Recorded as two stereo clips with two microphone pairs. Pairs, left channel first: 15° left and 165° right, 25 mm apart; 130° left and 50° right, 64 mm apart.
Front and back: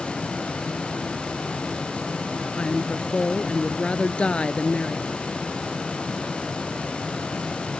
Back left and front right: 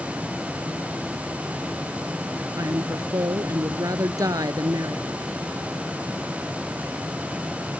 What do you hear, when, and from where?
2.6 s a woman speaking: 25° right